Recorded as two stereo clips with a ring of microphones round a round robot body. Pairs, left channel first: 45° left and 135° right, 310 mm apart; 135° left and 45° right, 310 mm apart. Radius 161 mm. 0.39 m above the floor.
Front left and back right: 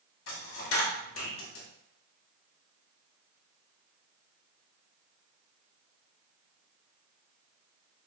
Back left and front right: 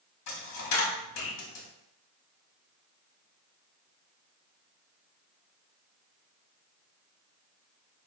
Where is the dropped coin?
95° left, 0.9 m.